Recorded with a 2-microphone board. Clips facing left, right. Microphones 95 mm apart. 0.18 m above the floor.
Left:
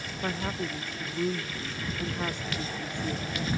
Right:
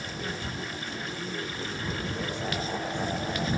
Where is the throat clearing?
No throat clearing in this recording.